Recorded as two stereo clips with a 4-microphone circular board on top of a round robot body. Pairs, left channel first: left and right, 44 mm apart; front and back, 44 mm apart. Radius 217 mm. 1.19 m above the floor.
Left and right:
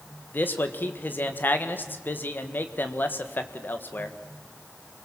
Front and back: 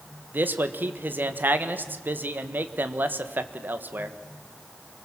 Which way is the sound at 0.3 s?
135° left.